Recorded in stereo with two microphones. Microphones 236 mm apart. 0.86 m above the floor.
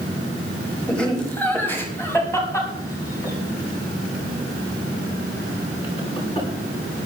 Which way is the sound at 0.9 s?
5° left (ahead or behind).